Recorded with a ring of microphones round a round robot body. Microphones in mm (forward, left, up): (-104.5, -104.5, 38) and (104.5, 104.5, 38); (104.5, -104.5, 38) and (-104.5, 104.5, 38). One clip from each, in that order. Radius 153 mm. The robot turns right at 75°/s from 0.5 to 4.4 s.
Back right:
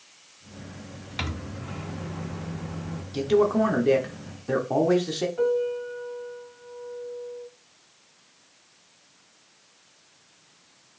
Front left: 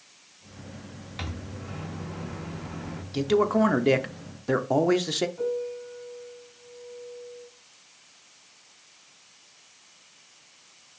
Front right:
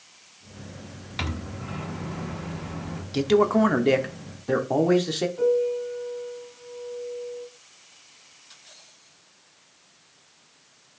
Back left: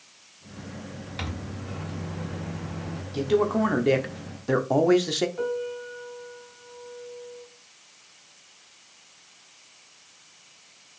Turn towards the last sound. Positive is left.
turn(degrees=-175)